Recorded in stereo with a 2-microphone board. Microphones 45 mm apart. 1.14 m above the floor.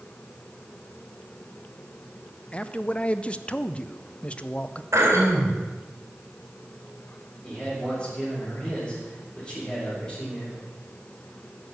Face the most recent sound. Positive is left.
turn(degrees=15)  # may be behind; listen again after turning